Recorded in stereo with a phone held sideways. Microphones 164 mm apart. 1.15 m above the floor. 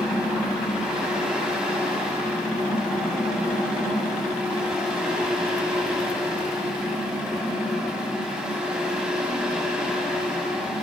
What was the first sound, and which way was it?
A fan, 5° right (ahead or behind).